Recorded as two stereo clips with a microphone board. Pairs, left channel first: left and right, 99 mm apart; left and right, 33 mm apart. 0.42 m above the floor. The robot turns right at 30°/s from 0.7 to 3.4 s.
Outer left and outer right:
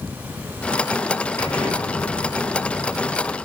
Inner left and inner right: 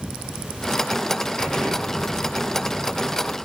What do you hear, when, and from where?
1.4 s an explosion: 160° left, 5.5 m; by 3.4 s 140° right, 5.5 m